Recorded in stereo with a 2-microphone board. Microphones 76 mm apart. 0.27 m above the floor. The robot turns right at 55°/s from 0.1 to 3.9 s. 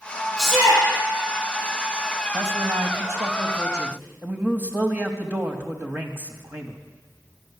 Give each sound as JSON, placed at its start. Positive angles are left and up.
{"t": 0.4, "sound": "a shout", "side_deg": 0, "distance_m": 8.0}
{"t": 2.3, "sound": "a man speaking", "azimuth_deg": -130, "distance_m": 1.3}